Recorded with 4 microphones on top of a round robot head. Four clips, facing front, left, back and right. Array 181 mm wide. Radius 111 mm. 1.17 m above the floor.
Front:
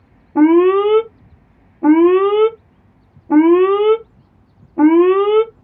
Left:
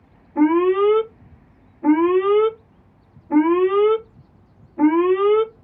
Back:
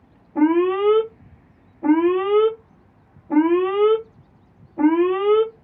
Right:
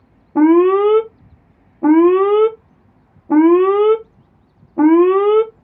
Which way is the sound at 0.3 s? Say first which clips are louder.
Right 5 dB, front 7 dB; 65° right.